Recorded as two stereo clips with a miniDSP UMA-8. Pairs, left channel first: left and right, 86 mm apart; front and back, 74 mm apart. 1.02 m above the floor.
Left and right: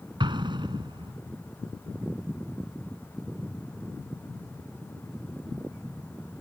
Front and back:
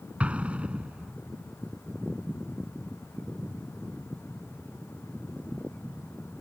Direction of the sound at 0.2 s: 105° right.